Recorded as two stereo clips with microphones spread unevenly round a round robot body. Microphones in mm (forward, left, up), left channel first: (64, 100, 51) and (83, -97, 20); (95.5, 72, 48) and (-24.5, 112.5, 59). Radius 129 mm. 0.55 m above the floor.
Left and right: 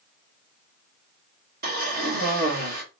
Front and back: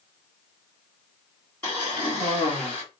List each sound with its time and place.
1.6 s a cough: 90° right, 1.6 m